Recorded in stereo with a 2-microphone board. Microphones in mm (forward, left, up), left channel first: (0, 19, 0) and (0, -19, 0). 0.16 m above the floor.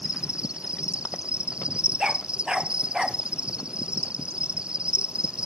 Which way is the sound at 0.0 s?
30° right (ahead or behind).